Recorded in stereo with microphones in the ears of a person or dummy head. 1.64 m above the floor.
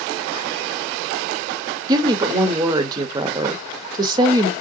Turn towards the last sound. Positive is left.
turn(degrees=-25)  # may be behind; listen again after turning